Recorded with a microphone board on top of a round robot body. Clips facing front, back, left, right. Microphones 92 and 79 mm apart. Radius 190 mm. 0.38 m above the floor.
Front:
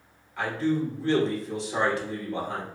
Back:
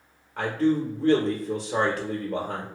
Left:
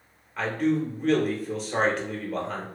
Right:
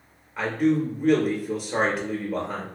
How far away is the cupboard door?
No cupboard door in this recording.